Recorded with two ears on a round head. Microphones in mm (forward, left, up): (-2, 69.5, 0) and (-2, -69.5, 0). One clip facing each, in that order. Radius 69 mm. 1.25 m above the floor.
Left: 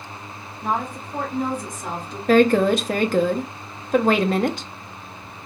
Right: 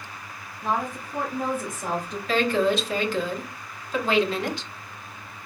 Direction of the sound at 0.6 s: 10° left (ahead or behind).